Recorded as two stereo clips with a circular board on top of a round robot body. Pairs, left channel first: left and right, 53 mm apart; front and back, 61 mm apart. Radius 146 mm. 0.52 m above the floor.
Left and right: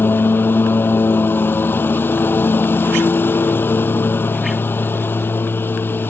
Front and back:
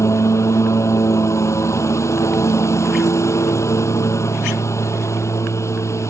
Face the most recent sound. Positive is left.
turn(degrees=40)